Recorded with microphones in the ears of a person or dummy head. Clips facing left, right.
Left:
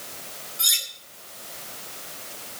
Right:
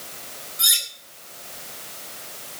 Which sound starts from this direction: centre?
Cutlery clinking, at 0.6 s.